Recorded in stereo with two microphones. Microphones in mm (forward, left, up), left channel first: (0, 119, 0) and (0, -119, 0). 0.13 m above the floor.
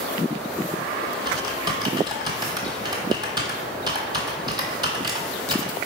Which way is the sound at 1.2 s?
20° right (ahead or behind).